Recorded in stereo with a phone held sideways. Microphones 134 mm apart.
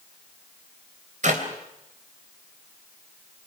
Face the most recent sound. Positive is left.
turn(degrees=-65)  # may be behind; listen again after turning